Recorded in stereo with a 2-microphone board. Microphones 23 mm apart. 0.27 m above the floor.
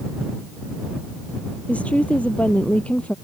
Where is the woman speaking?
75° left (ahead or behind).